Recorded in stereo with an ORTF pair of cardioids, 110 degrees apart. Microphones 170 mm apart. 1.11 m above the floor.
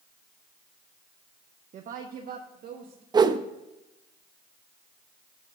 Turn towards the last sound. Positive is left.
turn(degrees=-25)